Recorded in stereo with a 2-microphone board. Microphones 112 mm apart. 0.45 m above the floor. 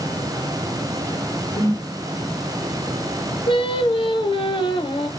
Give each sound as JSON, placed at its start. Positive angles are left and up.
{"t": 1.6, "sound": "a whoosh", "side_deg": 35, "distance_m": 1.7}
{"t": 3.5, "sound": "singing", "side_deg": 50, "distance_m": 0.9}